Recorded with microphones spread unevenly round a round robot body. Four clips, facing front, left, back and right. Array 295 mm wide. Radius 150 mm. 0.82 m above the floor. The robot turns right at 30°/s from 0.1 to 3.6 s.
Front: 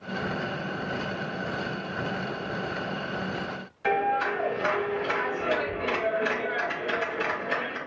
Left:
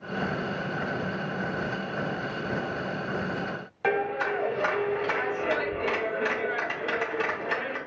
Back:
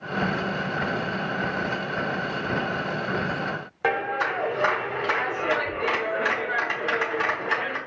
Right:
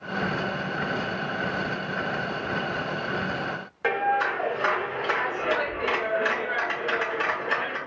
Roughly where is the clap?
Behind.